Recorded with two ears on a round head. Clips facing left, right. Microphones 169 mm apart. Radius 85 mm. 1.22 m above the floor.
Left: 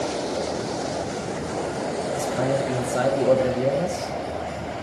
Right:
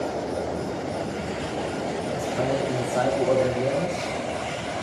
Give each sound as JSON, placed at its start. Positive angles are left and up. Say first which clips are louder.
{"t": 2.1, "sound": "a man speaking", "louder": "left 2 dB", "side_deg": 30, "distance_m": 0.7}